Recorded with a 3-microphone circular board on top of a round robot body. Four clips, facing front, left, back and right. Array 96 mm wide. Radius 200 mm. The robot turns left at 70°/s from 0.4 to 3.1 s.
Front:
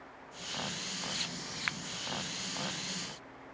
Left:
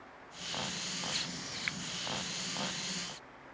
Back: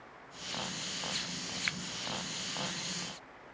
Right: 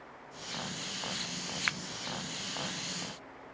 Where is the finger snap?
65° right; by 1.8 s 75° right.